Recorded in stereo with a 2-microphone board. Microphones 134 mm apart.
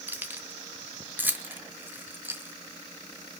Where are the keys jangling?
15° right (ahead or behind), 0.8 m.